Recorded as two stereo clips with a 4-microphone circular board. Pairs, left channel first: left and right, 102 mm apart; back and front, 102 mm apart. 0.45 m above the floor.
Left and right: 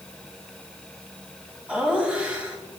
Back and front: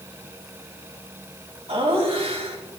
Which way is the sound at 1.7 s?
10° right.